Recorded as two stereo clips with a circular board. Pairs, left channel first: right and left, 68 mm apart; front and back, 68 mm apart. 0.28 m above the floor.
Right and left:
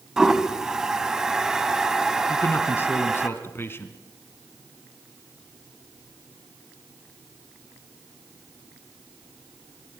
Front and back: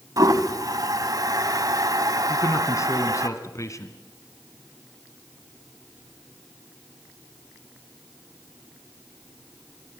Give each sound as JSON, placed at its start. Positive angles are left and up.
{"t": 0.2, "sound": "a toilet flushing", "azimuth_deg": 170, "distance_m": 1.3}
{"t": 2.3, "sound": "a man speaking", "azimuth_deg": -35, "distance_m": 2.5}